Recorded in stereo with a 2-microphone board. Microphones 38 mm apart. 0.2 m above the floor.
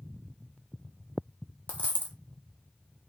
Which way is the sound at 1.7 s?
45° left (ahead or behind).